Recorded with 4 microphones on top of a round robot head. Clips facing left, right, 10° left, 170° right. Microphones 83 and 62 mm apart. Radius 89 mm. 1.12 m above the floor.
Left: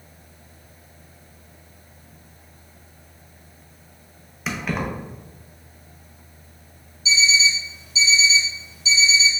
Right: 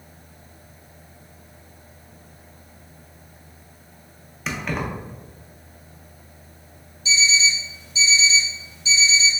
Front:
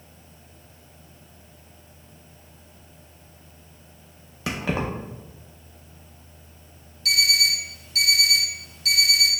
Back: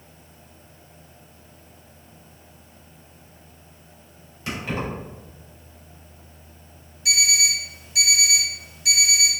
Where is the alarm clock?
115° left, 0.8 m.